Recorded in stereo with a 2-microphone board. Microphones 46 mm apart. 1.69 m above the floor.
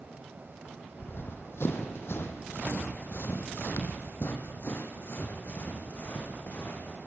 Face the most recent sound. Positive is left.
turn(degrees=45)  # may be behind; listen again after turning